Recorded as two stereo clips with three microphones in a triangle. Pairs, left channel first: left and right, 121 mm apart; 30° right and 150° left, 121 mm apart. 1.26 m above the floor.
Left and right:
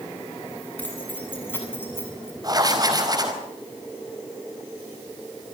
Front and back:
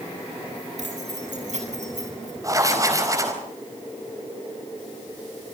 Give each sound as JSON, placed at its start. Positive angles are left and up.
{"t": 0.8, "sound": "keys jangling", "azimuth_deg": 165, "distance_m": 8.5}
{"t": 2.4, "sound": "writing", "azimuth_deg": -145, "distance_m": 4.5}